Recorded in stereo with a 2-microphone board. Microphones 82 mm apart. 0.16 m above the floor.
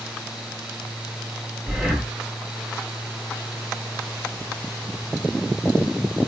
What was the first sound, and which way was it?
Breathing, 5° right (ahead or behind).